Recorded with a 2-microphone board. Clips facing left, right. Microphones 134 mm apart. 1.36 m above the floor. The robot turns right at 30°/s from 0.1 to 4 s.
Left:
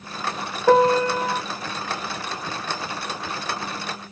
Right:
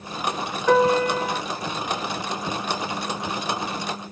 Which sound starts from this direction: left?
A piano, at 0.7 s.